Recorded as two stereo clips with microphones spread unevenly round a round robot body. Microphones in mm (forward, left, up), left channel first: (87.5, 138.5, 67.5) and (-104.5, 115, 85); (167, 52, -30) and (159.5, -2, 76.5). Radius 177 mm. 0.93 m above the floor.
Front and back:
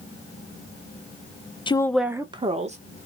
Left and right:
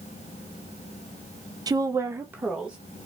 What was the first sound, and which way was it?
A woman speaking, 50° left.